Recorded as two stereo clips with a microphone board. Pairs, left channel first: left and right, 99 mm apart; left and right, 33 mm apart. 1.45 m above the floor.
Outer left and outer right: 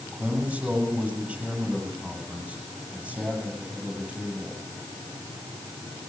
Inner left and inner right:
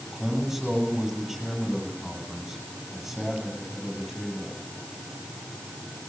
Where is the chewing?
I don't hear chewing.